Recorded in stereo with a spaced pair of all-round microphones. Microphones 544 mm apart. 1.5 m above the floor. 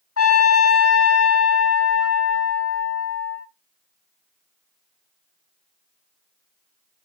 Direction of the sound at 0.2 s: 30° left (ahead or behind).